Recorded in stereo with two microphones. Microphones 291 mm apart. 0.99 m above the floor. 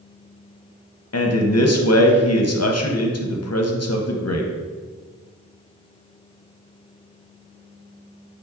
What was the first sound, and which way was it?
A man speaking, 55° left (ahead or behind).